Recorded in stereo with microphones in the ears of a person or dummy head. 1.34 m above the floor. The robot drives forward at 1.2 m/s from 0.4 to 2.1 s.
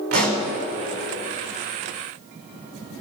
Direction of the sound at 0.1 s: 50° right (ahead or behind).